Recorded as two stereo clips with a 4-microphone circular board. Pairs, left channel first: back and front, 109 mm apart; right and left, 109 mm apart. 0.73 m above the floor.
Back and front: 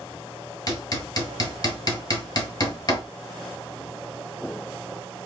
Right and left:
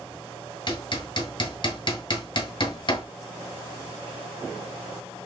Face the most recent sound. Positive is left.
turn(degrees=-130)